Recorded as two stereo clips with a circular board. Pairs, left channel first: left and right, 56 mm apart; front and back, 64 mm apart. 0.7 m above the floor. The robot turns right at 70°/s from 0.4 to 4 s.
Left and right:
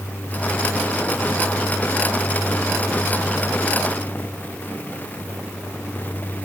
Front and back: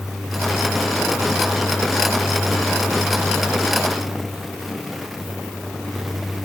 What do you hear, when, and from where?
Only background noise.